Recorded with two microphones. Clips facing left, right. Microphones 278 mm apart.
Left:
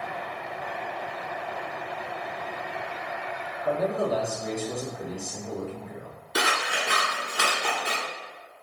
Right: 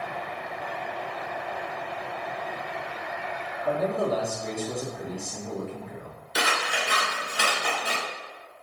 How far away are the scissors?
About 1.6 m.